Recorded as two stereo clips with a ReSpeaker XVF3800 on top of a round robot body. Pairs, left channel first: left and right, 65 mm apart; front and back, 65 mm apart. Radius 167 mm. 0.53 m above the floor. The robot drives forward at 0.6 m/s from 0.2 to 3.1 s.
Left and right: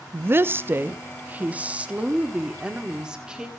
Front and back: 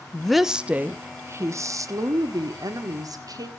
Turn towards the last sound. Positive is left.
turn(degrees=-170)